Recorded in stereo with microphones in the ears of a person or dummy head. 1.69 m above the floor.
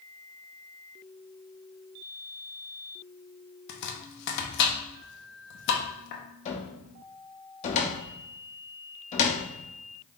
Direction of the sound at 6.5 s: 35° left (ahead or behind).